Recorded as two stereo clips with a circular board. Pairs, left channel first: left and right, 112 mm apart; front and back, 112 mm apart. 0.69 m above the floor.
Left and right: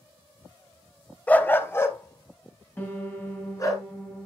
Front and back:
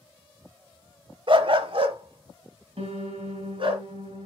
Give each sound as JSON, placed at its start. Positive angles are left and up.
{"t": 1.3, "sound": "a dog barking", "azimuth_deg": 165, "distance_m": 0.6}
{"t": 2.8, "sound": "a piano", "azimuth_deg": 160, "distance_m": 2.5}